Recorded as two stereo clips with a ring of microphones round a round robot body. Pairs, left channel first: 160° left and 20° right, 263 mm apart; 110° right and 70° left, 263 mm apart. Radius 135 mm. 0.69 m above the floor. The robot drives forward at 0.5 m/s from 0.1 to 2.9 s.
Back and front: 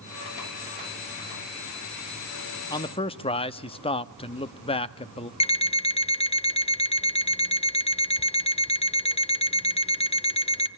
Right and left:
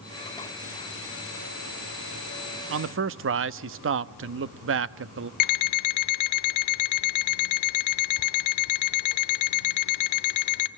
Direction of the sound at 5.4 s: 135° right.